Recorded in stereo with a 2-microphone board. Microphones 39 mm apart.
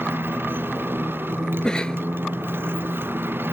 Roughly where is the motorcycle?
Right.